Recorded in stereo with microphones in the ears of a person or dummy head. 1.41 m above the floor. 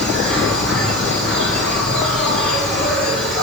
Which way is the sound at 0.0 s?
10° left (ahead or behind).